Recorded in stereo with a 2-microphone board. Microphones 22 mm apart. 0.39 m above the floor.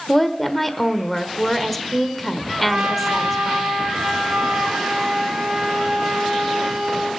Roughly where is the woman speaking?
Centre.